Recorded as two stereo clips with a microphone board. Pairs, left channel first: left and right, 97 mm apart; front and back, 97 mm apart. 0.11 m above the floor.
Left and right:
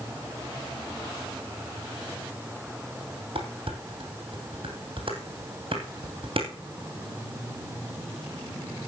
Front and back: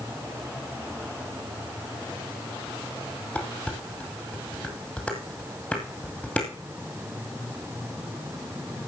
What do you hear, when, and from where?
3.4 s dishes clattering: 75° right, 2.5 m